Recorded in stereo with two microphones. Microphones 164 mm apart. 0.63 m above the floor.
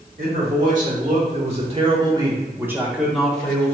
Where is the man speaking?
60° right (ahead or behind), 1.8 m; by 3.8 s 10° left (ahead or behind), 1.3 m.